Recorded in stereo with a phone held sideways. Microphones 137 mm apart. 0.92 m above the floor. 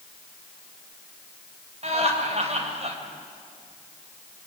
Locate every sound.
1.8 s laughter: 50° right (ahead or behind), 4.5 m